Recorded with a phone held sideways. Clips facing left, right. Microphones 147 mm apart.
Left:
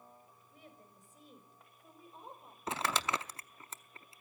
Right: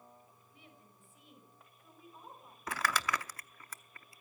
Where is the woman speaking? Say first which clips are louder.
Left 4 dB; 45° left (ahead or behind), 5.5 m; by 2.6 s 30° left (ahead or behind), 5 m.